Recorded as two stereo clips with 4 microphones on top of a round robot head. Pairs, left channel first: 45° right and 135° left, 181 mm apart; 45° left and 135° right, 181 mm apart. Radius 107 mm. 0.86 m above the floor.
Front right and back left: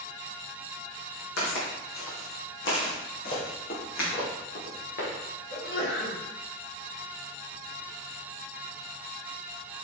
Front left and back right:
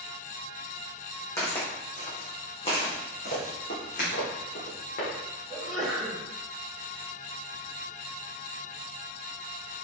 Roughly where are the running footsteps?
Ahead.